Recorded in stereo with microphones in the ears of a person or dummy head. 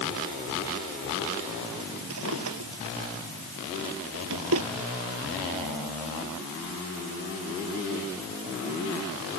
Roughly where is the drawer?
Right.